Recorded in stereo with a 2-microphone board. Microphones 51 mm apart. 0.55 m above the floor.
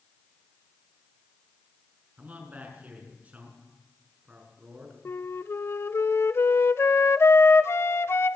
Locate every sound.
2.2 s a man speaking: 30° right (ahead or behind), 6 m
5.0 s a flute: 55° left (ahead or behind), 0.6 m